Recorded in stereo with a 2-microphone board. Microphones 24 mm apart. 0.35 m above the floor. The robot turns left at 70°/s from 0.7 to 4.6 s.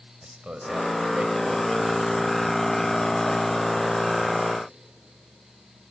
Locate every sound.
0.2 s a man speaking: 75° right, 1.8 m; by 4.4 s 30° left, 1.8 m